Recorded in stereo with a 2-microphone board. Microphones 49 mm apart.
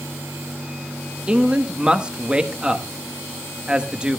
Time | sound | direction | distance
1.3 | a man speaking | 20° right (ahead or behind) | 1.0 m